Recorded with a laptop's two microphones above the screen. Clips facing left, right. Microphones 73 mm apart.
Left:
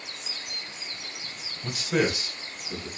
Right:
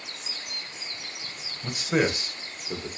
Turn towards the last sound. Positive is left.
turn(degrees=-50)  # may be behind; listen again after turning